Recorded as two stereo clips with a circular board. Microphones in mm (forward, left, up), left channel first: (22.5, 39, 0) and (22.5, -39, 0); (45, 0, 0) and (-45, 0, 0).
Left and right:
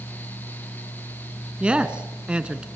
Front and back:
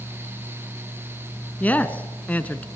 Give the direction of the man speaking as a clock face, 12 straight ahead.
1 o'clock.